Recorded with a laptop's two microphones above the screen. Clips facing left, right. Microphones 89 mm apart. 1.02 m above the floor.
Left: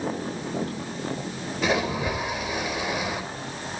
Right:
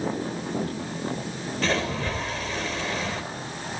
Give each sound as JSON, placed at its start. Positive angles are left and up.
{"t": 1.6, "sound": "a splash", "side_deg": 10, "distance_m": 4.0}